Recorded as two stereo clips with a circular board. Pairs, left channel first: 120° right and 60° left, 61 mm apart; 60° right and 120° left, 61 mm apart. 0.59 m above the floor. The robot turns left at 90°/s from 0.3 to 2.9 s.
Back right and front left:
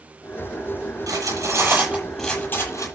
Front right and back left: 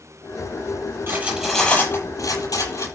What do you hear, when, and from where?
1.1 s cutlery clinking: 70° left, 9 m; by 2.9 s 90° right, 9 m